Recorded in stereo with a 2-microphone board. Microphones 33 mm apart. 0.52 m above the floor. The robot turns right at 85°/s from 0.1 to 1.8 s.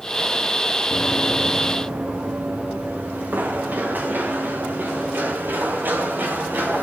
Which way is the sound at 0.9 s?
45° left (ahead or behind).